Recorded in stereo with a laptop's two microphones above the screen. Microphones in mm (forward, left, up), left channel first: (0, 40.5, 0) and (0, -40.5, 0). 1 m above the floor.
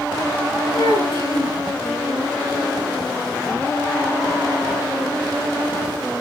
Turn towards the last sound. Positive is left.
turn(degrees=80)